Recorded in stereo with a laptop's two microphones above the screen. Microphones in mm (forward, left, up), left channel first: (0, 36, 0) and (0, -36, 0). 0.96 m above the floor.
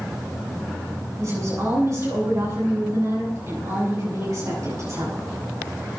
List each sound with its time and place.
1.2 s a woman speaking: 45° right (ahead or behind), 9.5 m